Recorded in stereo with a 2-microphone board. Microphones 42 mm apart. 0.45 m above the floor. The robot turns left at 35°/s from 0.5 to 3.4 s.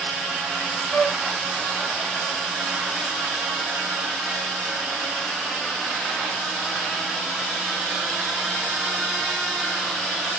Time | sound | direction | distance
0.9 | a flute | 10° left (ahead or behind) | 0.7 m